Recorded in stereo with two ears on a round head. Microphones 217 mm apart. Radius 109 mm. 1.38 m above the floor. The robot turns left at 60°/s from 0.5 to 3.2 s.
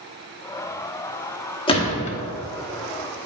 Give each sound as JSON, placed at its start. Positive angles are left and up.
{"t": 1.7, "sound": "a gunshot", "side_deg": 20, "distance_m": 1.0}